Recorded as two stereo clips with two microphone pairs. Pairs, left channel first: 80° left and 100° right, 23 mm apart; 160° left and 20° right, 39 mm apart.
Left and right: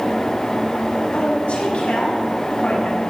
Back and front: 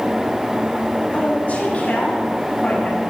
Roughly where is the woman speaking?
Left.